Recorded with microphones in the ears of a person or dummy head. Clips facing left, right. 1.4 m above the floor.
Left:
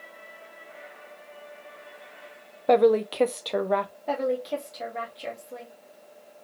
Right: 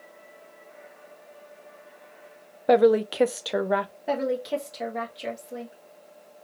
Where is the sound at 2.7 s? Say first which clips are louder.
Right 1 dB; 5° right (ahead or behind), 0.5 m.